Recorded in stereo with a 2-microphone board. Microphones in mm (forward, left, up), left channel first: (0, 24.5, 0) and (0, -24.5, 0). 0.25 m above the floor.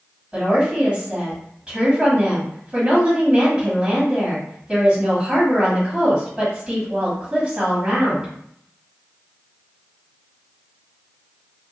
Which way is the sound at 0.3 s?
20° right (ahead or behind).